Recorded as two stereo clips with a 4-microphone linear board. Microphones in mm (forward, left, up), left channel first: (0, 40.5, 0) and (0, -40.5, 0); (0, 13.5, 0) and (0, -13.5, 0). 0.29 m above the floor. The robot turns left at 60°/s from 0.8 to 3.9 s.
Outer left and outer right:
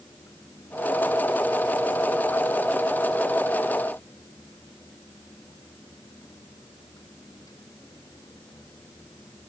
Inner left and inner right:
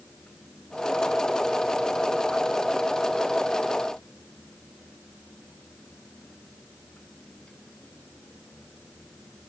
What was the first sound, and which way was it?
Only background noise.